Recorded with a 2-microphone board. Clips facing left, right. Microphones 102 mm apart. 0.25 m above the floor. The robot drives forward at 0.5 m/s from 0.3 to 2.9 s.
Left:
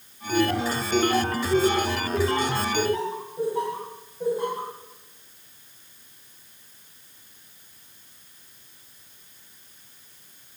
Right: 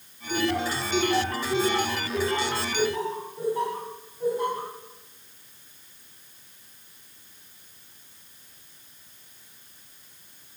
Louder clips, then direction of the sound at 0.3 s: Left 3 dB; 30° left (ahead or behind).